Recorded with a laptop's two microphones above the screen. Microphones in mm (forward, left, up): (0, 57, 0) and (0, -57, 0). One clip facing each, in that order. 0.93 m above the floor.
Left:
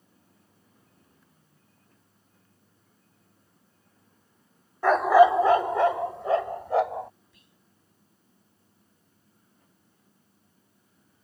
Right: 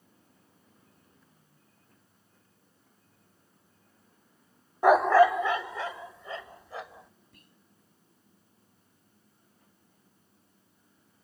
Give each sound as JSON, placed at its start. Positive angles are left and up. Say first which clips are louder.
{"t": 4.8, "sound": "a dog barking", "louder": "left 2 dB", "side_deg": -15}
{"t": 7.3, "sound": "whispering", "louder": "right 2 dB", "side_deg": -50}